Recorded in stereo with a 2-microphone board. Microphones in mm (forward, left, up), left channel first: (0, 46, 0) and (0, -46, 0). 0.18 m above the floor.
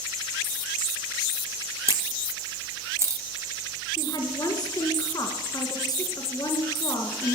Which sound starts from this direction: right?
A camera shutter, at 1.9 s.